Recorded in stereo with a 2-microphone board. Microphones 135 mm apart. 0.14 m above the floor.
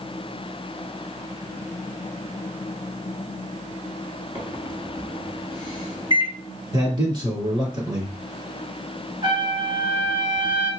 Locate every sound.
4.3 s a microwave: 35° right (ahead or behind), 1.3 m
6.7 s a man speaking: 35° right (ahead or behind), 2 m
9.2 s a trumpet: 40° right (ahead or behind), 1.2 m